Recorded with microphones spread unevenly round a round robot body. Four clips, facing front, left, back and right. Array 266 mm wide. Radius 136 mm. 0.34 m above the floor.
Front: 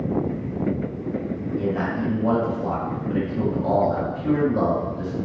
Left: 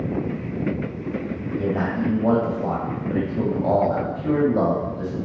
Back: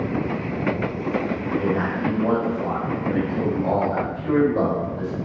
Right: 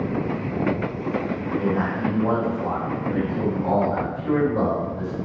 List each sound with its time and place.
1.6 s a man speaking: 100° left, 1.9 m